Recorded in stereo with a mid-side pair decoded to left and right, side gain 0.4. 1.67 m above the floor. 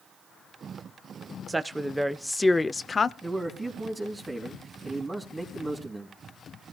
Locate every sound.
1.5 s a woman speaking: 25° right, 0.8 m; by 3.1 s 45° left, 0.8 m
3.2 s a man speaking: 25° right, 3 m